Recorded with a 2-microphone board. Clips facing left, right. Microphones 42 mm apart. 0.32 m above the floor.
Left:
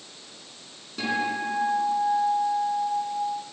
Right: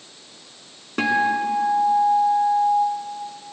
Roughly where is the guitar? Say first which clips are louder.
Right 7 dB; right.